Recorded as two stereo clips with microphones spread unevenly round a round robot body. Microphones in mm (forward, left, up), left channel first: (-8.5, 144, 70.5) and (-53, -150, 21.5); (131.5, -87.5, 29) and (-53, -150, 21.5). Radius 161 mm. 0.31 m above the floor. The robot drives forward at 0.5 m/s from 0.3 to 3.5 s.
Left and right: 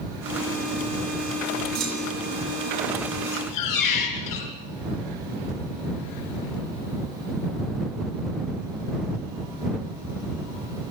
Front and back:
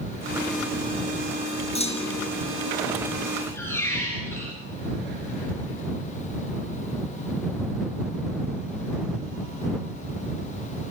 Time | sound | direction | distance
1.8 | a clunk | 40° right | 4 m
3.3 | a squeak | 100° left | 3.5 m